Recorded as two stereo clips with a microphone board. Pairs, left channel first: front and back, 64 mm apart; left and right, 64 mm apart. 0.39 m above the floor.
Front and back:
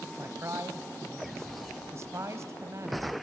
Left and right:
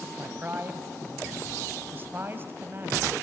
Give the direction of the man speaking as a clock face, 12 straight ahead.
5 o'clock.